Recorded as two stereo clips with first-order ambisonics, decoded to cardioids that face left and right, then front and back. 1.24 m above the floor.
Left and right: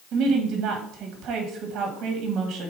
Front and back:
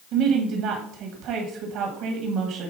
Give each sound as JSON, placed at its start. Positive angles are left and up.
{"t": 0.1, "sound": "a woman speaking", "azimuth_deg": -140, "distance_m": 1.4}